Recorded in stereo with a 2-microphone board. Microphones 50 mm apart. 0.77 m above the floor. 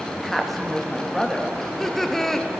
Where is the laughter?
10° left (ahead or behind), 0.5 m.